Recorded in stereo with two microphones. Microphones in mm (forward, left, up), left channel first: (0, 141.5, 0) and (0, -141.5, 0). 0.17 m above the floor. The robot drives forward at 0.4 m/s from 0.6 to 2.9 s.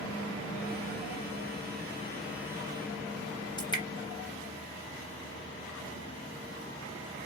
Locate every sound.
3.6 s dripping: 15° left (ahead or behind), 1.4 m